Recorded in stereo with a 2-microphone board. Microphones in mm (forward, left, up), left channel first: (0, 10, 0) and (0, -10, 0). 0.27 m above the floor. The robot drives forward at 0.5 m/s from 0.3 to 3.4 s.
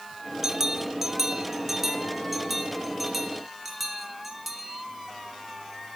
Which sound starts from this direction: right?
A bell, at 0.4 s.